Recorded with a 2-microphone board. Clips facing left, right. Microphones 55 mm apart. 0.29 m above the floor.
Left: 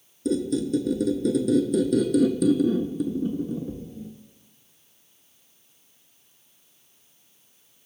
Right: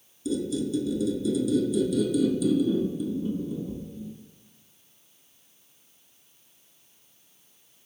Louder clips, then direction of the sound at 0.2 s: Left 3 dB; 60° left (ahead or behind).